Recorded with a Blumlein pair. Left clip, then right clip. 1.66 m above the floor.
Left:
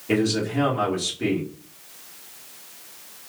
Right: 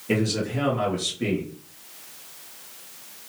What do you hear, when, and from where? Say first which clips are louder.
0.1 s a man speaking: left 2 dB; 5° left, 2.0 m